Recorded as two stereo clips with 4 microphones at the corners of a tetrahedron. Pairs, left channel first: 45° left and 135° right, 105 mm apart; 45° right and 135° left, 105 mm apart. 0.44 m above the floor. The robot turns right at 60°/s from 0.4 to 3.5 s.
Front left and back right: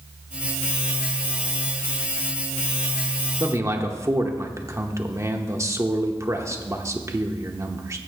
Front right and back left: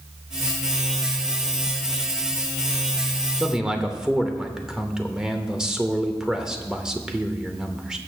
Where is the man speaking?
155° right, 0.8 m; by 8.0 s 150° right, 0.8 m.